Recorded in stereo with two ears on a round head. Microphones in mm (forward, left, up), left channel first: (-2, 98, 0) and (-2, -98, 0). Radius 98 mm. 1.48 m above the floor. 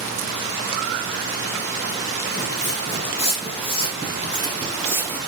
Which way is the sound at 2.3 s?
35° left (ahead or behind).